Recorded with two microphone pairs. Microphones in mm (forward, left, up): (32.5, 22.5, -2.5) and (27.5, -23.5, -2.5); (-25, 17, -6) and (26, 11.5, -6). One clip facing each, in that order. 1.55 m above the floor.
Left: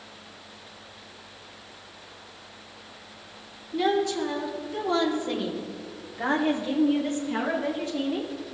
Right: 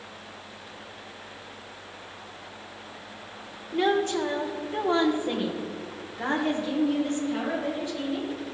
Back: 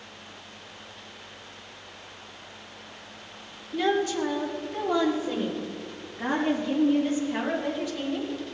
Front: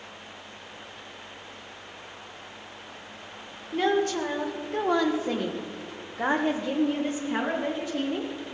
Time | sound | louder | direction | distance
3.7 | a woman speaking | even, front 1 dB | 55° right | 2 m